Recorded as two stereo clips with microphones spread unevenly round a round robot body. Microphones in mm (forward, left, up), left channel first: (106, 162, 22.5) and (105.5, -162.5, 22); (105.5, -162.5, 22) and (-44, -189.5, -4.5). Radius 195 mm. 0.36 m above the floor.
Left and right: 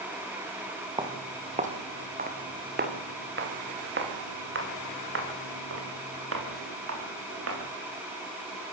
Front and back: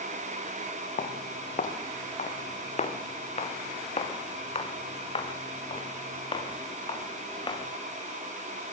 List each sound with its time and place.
1.0 s footsteps: 15° right, 4.5 m; by 7.6 s 45° right, 10.5 m